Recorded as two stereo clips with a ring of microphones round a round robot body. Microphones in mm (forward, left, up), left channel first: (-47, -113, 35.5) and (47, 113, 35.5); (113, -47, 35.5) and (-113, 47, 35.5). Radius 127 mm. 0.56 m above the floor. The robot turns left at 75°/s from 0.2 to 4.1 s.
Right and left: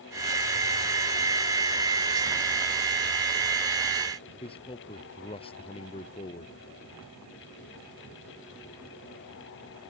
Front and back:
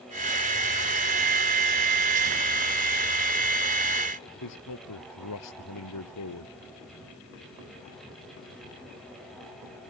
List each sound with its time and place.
4.4 s a man speaking: 45° right